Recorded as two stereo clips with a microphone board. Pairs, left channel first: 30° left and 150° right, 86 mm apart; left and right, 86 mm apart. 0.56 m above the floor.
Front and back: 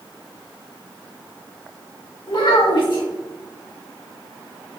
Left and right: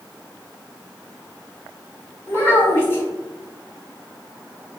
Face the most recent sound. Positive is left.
turn(degrees=30)